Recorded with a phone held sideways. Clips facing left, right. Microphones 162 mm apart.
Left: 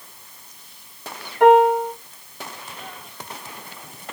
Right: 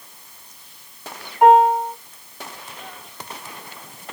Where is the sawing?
I don't hear sawing.